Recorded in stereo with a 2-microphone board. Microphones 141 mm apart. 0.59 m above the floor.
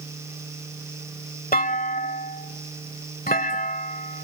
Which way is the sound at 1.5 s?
80° left.